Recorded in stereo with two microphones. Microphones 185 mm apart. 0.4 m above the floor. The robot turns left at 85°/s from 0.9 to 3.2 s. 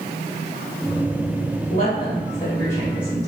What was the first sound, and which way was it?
A woman speaking, 45° left (ahead or behind).